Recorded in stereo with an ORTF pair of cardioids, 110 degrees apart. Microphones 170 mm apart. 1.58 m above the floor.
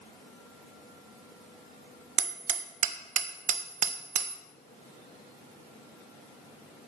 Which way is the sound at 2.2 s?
45° right.